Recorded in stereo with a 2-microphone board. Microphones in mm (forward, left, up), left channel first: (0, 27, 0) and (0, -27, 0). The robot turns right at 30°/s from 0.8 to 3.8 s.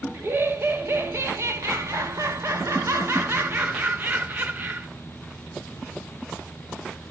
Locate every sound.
0.1 s laughter: 130° right, 1.1 m; by 4.9 s 40° right, 1.1 m